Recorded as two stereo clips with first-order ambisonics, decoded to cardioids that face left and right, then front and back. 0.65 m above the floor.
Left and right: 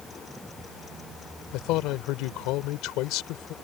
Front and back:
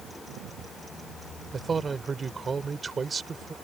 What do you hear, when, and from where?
1.5 s a man speaking: 110° left